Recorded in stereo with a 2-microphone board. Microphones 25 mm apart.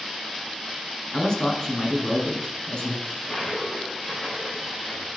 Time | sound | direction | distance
1.1 | a man speaking | 30° left (ahead or behind) | 1.6 m
3.0 | a toilet flushing | 30° left (ahead or behind) | 3.5 m